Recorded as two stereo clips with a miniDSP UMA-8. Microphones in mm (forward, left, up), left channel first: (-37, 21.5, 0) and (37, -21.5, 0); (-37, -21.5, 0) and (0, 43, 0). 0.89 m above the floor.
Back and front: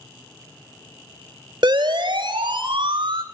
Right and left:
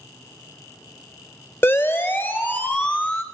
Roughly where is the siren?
Ahead right.